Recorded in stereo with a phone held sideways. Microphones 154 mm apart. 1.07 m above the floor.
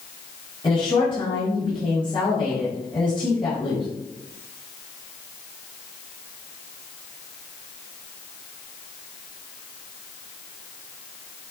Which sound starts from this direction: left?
A woman speaking, at 0.6 s.